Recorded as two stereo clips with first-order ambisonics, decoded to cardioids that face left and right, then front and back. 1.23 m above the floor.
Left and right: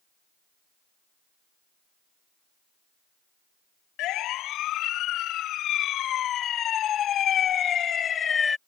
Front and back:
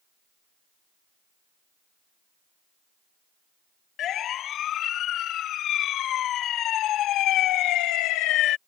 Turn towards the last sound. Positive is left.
turn(degrees=20)